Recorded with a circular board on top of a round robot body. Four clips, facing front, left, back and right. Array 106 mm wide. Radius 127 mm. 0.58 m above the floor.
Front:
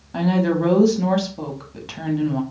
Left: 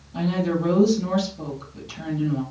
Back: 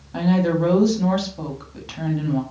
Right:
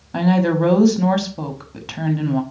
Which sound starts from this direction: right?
A woman speaking, at 0.1 s.